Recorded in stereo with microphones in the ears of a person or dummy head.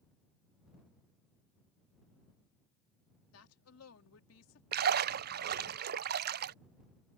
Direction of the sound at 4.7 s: 50° right (ahead or behind).